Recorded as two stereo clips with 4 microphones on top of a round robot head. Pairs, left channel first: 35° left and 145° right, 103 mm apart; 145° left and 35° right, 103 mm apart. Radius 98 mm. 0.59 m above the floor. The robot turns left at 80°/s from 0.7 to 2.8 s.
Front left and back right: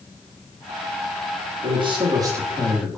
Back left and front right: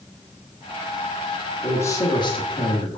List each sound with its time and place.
1.6 s a man speaking: 140° right, 1.3 m; by 3.0 s 125° left, 1.3 m